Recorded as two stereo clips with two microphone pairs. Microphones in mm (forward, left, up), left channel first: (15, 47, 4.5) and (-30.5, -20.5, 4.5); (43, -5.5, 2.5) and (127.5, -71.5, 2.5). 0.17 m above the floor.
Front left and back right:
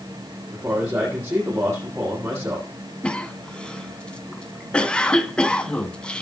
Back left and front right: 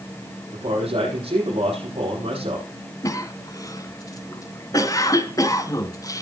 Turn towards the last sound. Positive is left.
turn(degrees=125)